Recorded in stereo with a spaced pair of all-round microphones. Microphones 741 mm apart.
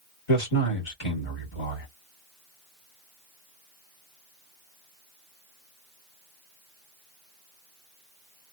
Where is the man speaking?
40° left (ahead or behind), 1.4 m.